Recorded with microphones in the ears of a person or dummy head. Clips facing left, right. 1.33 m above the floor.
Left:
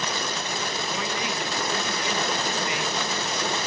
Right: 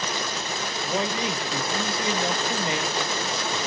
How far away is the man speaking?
About 1.1 m.